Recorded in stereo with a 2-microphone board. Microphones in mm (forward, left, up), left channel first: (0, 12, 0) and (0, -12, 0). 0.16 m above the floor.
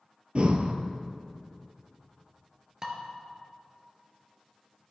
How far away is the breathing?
About 0.7 m.